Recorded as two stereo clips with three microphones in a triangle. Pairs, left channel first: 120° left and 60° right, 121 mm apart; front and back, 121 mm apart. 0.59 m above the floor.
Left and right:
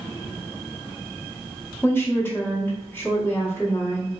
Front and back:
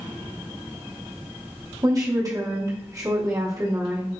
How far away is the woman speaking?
About 1.0 m.